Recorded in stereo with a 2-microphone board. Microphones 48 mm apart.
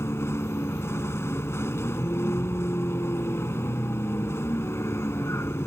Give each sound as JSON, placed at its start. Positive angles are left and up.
{"t": 0.0, "sound": "a vehicle", "side_deg": 65}